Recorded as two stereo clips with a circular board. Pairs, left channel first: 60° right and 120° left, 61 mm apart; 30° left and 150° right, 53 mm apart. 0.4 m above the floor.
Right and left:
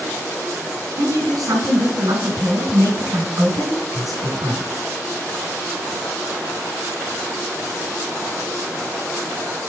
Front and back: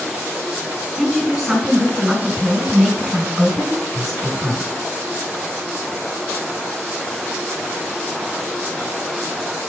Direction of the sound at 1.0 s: 120° left.